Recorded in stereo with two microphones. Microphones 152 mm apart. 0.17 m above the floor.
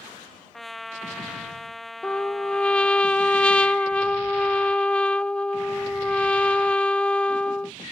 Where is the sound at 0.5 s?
Centre (ahead or behind).